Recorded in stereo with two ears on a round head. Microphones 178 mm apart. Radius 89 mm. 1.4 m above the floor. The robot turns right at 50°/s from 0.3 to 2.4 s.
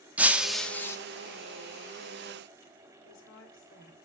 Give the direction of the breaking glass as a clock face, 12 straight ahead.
12 o'clock.